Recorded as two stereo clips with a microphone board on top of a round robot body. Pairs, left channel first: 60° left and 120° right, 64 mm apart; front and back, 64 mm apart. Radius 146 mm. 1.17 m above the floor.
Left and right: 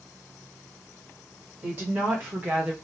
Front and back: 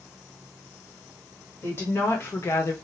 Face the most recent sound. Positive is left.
turn(degrees=-45)